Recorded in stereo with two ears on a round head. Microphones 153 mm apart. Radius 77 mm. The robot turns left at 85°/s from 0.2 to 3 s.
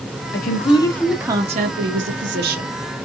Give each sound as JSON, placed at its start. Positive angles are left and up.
{"t": 0.3, "sound": "a woman speaking", "azimuth_deg": 65, "distance_m": 0.8}